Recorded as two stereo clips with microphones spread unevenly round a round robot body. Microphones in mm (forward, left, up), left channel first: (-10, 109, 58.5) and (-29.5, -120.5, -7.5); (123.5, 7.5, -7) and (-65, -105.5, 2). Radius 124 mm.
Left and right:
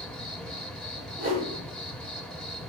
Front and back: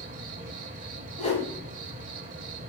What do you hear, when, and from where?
0.0 s an insect: 160° right, 1.3 m
1.2 s a whoosh: 30° right, 9.5 m